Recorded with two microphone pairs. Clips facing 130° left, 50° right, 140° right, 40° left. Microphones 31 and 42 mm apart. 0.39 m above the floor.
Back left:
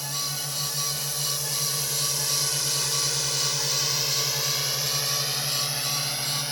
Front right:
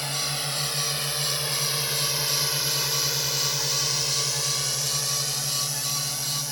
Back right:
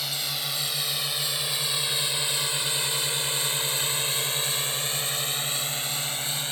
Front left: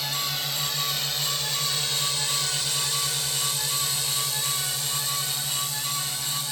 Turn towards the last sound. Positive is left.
turn(degrees=175)